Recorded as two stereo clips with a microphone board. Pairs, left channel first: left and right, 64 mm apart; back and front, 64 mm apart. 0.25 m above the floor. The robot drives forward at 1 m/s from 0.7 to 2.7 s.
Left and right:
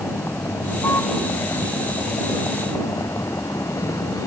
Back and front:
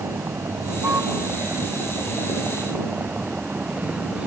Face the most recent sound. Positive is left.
turn(degrees=70)